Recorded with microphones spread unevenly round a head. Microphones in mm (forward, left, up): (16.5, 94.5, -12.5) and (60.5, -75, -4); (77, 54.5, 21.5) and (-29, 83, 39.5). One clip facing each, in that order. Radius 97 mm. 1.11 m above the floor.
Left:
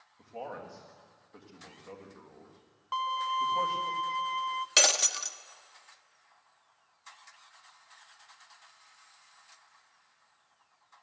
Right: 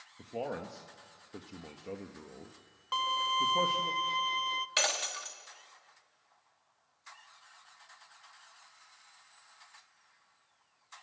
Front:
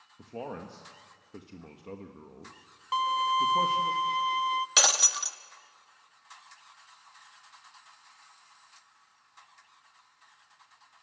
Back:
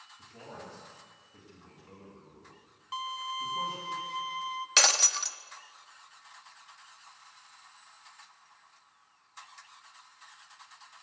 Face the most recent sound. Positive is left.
turn(degrees=70)